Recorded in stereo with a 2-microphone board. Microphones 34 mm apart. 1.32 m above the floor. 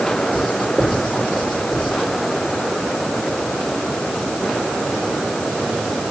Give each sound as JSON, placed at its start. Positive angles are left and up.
{"t": 0.3, "sound": "writing", "side_deg": -5, "distance_m": 9.0}